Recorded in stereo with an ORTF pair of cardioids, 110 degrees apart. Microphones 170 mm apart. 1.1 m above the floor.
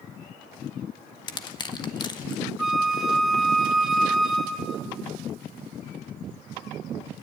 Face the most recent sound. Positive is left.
turn(degrees=0)